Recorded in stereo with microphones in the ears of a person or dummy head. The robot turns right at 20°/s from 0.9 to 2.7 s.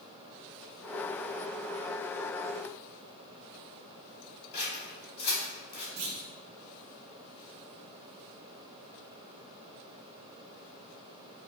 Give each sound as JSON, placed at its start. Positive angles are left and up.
{"t": 4.5, "sound": "scissors", "side_deg": 35, "distance_m": 2.0}
{"t": 6.0, "sound": "a clunk", "side_deg": -65, "distance_m": 0.9}